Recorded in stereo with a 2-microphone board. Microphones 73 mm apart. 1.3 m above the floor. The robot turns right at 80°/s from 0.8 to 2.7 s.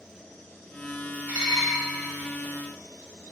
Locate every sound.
1.3 s dishes clattering: 30° right, 3 m; by 1.8 s 5° left, 3 m